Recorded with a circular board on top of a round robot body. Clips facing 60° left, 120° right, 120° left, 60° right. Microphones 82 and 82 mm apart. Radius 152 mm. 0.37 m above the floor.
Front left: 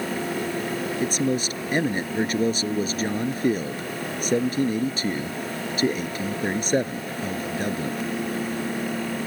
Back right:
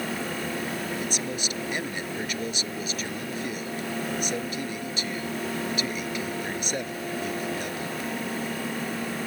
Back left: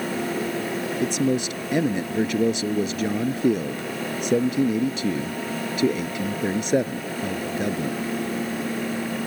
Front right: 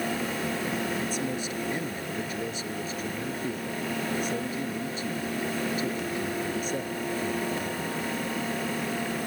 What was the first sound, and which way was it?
A man speaking, 115° left.